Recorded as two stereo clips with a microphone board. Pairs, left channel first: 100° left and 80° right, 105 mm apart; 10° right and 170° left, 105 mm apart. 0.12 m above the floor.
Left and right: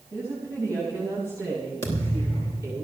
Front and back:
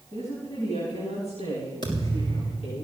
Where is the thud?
35° left, 7 m.